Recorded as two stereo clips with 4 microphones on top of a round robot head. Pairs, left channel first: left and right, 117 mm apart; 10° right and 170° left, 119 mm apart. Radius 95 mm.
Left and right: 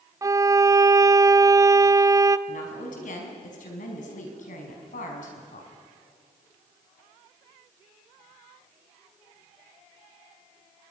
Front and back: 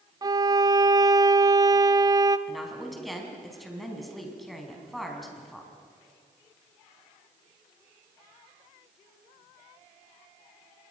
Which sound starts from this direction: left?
A woman speaking, at 2.5 s.